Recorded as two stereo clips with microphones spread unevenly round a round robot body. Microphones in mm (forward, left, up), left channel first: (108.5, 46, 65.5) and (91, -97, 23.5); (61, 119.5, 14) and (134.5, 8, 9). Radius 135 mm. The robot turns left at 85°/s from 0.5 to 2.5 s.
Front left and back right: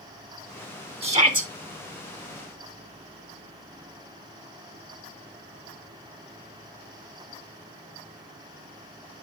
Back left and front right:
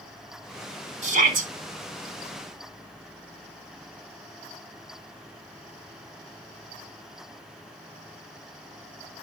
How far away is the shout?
About 4 m.